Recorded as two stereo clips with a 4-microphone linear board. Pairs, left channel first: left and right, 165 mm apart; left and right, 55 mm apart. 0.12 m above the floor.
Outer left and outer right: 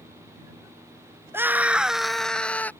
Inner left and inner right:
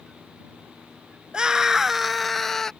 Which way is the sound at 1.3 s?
15° right (ahead or behind).